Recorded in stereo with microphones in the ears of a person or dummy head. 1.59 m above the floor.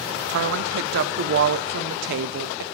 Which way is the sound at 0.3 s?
65° right (ahead or behind).